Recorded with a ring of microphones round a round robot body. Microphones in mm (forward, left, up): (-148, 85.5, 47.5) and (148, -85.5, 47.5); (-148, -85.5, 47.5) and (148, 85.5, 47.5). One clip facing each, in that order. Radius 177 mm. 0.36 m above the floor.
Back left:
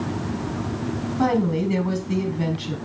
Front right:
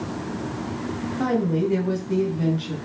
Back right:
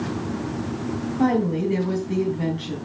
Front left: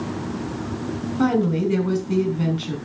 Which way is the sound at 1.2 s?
90° left.